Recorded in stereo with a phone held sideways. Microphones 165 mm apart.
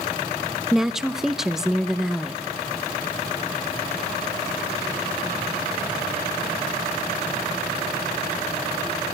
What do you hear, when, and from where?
0.7 s a woman speaking: 5° right (ahead or behind), 0.6 m